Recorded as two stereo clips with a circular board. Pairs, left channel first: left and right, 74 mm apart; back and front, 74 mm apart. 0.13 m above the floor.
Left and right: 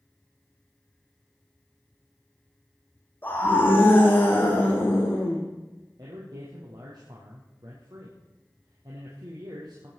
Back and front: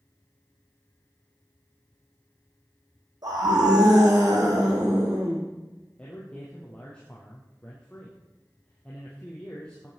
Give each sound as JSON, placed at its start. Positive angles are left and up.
{"t": 3.2, "sound": "a scream", "azimuth_deg": 25, "distance_m": 5.5}
{"t": 6.0, "sound": "a man speaking", "azimuth_deg": -105, "distance_m": 3.5}